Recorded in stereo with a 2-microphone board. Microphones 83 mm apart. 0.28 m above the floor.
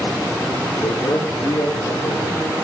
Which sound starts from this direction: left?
A man speaking, at 0.8 s.